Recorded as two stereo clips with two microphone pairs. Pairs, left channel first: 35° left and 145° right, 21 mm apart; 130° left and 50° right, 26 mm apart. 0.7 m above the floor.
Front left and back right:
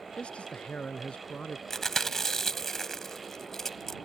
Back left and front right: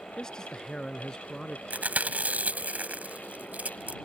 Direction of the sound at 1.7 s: 35° right.